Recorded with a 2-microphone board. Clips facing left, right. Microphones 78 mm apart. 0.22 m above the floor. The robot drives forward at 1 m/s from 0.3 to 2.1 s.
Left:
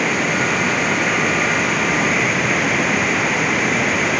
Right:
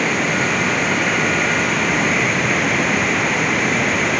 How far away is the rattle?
I don't hear a rattle.